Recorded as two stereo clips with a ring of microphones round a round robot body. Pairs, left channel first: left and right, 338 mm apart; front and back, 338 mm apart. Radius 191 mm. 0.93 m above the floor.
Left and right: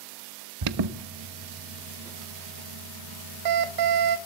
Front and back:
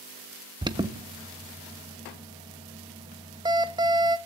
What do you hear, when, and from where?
0.6 s an alarm: 105° right, 1.4 m